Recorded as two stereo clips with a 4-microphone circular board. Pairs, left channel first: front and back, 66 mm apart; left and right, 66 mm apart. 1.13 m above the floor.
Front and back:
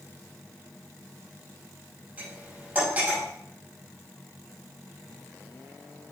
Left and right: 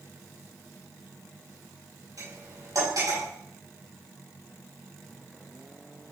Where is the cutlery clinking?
115° right, 4.5 m.